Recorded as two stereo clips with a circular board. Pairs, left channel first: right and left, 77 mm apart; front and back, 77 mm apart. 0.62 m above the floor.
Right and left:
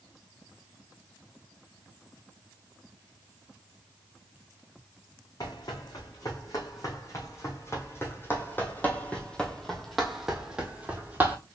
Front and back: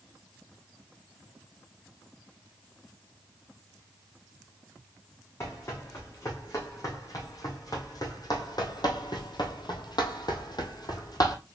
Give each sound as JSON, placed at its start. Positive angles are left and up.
{"t": 5.4, "sound": "running footsteps", "azimuth_deg": -55, "distance_m": 3.0}